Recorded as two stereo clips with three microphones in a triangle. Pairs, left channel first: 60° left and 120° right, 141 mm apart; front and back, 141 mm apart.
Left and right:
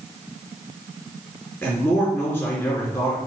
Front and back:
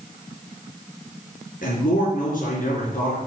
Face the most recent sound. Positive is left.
turn(degrees=-15)